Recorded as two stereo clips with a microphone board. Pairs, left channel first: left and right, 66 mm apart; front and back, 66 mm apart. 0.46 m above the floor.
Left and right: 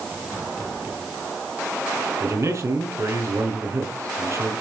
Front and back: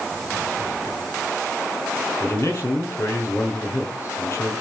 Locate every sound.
2.2 s a man speaking: 45° right, 4.5 m